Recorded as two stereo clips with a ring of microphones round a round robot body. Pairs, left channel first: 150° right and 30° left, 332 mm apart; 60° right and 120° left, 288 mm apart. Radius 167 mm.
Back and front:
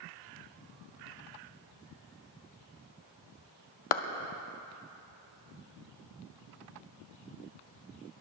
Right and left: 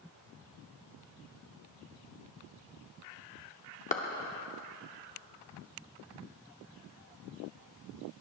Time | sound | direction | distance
3.9 | a clap | 125° right | 0.8 m